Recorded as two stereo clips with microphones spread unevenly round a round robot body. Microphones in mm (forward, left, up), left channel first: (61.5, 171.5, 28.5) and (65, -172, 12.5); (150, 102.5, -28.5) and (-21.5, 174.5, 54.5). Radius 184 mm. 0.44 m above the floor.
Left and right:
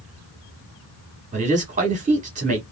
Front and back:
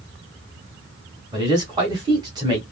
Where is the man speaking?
100° right, 0.9 m.